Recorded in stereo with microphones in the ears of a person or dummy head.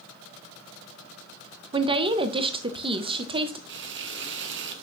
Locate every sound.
1.7 s a woman speaking: 25° right (ahead or behind), 0.7 m
3.7 s frying: 55° right (ahead or behind), 0.7 m